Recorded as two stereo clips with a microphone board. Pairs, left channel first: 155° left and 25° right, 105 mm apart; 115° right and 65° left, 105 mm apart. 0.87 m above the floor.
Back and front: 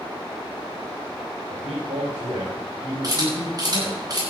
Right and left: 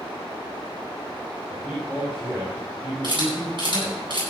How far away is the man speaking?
About 4.5 m.